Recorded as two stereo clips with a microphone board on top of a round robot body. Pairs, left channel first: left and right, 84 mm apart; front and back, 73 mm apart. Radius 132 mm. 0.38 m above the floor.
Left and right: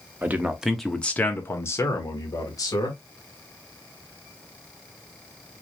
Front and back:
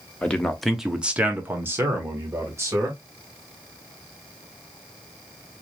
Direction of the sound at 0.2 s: 55° right.